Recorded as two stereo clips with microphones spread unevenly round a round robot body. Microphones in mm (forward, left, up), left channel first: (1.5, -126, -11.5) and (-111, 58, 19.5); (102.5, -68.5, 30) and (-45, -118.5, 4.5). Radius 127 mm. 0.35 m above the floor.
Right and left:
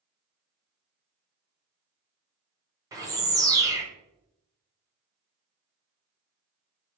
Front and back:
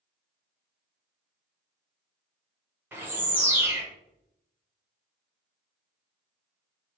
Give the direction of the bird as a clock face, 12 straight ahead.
6 o'clock.